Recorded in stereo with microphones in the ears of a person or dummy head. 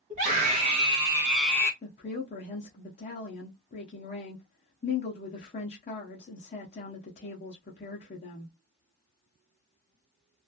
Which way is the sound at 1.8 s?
25° left (ahead or behind).